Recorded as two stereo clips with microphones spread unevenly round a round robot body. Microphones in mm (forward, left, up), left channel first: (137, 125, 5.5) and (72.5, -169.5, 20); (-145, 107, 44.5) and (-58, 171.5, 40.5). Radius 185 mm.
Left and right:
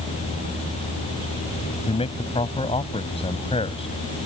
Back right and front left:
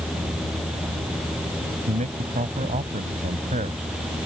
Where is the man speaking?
5° left.